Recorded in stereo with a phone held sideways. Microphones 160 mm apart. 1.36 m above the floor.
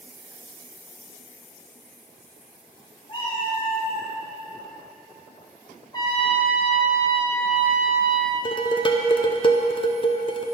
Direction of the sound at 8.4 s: 30° left (ahead or behind).